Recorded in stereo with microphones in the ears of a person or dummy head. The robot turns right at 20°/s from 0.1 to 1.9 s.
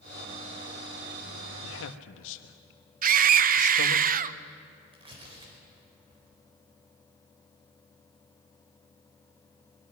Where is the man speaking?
65° left (ahead or behind), 1.6 m; by 4.0 s 70° left (ahead or behind), 1.6 m.